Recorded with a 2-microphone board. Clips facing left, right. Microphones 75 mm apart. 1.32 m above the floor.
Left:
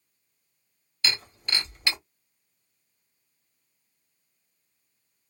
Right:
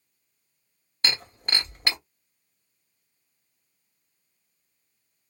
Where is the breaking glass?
45° right (ahead or behind), 1.7 m.